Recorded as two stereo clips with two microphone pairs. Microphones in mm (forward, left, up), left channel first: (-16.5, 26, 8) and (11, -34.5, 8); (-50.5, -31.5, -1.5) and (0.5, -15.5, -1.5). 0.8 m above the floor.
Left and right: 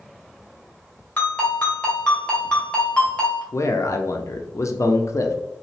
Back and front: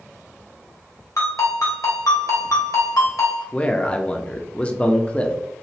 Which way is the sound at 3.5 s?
140° left.